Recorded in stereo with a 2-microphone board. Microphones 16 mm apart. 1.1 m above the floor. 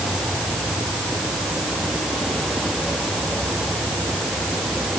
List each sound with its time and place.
Only background noise.